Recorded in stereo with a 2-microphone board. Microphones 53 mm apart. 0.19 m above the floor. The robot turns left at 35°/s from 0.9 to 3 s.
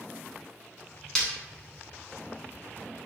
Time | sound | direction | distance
1.1 | breaking glass | 10° left (ahead or behind) | 1.0 m